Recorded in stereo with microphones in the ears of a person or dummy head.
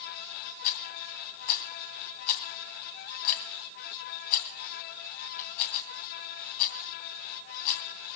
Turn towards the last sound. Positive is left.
turn(degrees=50)  # may be behind; listen again after turning